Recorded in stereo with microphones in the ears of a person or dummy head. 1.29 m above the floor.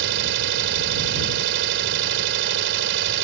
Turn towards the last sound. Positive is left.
turn(degrees=-70)  # may be behind; listen again after turning